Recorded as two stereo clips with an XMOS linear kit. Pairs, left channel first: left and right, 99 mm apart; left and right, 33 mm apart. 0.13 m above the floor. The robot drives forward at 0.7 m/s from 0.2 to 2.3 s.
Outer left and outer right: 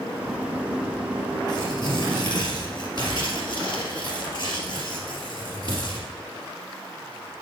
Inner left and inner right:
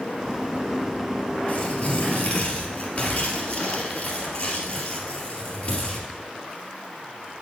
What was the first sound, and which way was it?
Tearing paper, 45° left (ahead or behind).